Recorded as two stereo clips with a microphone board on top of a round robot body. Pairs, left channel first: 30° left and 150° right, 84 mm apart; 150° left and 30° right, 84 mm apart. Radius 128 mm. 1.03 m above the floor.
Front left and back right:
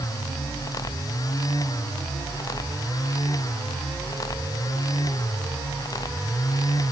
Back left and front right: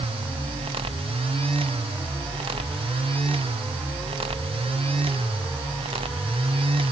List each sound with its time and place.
Only background noise.